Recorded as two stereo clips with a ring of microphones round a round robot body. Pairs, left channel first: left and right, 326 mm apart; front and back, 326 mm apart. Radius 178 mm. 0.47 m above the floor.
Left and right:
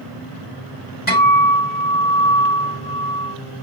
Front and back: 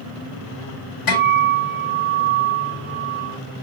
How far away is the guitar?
About 4.5 m.